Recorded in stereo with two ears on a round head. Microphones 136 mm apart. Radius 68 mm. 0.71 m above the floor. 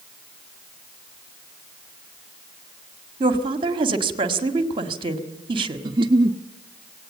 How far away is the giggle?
About 0.7 m.